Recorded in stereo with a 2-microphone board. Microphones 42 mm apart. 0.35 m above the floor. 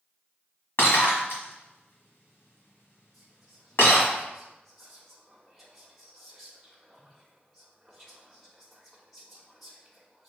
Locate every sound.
0.8 s breaking glass: 70° left (ahead or behind), 1.7 m
3.1 s whispering: 5° left (ahead or behind), 1.2 m